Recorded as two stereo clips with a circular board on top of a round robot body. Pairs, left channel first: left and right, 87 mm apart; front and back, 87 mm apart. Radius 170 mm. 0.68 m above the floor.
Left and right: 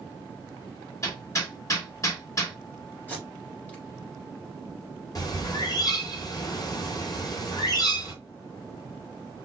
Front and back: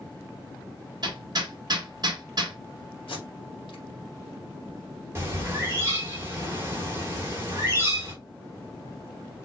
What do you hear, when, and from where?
1.0 s hammering: 145° left, 1.8 m
3.1 s tape being pulled: 15° left, 2.5 m
5.2 s a bird: 125° left, 2 m